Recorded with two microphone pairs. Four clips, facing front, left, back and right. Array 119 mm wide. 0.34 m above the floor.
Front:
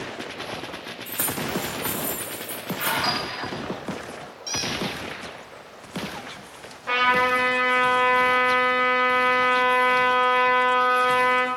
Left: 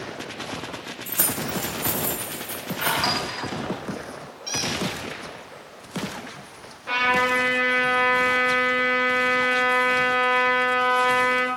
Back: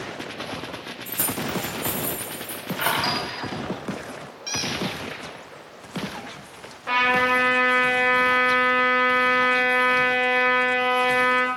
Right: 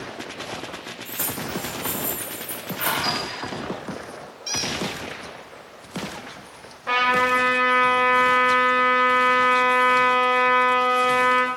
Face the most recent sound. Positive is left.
turn(degrees=-110)